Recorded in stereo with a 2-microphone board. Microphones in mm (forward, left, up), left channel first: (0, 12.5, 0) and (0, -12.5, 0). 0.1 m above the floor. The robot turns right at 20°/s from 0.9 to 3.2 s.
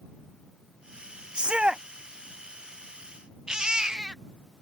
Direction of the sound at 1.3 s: 40° right (ahead or behind).